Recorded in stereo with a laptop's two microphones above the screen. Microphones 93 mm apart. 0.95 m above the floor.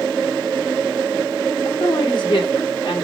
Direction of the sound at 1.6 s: 60° left (ahead or behind).